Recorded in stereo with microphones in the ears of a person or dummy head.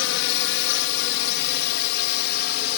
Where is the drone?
65° left (ahead or behind); by 2.8 s 50° left (ahead or behind).